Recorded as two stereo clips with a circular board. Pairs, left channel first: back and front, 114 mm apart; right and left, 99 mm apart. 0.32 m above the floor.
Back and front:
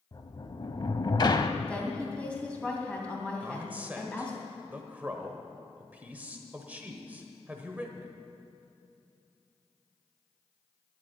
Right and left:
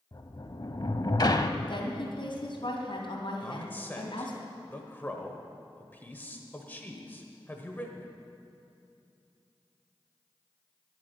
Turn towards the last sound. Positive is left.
turn(degrees=-50)